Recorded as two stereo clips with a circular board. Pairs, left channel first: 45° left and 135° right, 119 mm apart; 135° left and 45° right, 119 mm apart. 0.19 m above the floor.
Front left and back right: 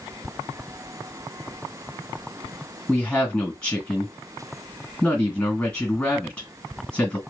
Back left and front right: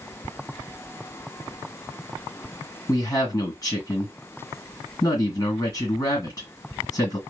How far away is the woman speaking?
About 1.9 m.